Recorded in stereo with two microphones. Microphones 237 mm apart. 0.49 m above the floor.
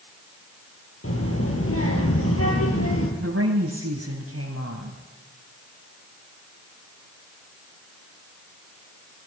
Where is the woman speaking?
75° right (ahead or behind), 2.5 m.